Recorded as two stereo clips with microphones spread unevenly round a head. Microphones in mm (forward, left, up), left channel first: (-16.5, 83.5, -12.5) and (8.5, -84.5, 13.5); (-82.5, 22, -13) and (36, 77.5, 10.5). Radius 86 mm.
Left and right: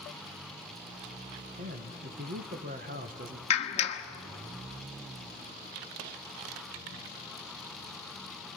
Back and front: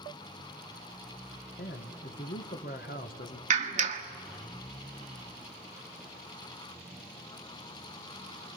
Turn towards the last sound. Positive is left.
turn(degrees=40)